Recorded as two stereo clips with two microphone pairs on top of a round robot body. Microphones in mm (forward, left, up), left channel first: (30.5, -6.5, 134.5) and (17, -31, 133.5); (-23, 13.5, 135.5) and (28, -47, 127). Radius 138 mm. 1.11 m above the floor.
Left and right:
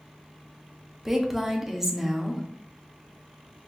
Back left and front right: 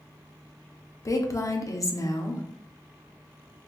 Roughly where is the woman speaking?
Behind.